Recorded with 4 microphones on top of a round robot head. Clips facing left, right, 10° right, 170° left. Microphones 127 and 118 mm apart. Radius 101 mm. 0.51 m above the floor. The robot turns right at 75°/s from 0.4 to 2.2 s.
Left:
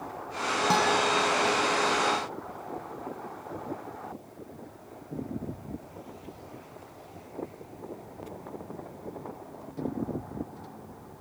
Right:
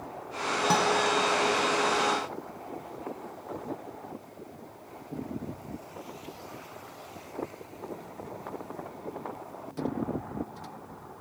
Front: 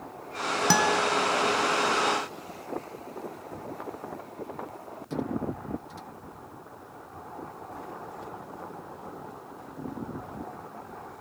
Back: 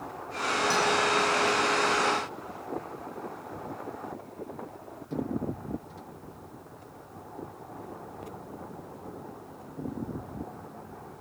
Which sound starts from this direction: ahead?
A guitar, at 0.7 s.